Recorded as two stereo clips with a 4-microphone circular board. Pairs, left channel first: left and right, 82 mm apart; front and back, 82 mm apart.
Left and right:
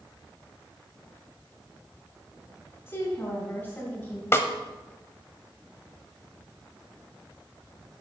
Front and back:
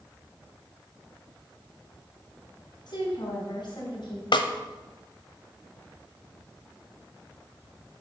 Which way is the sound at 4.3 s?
30° left.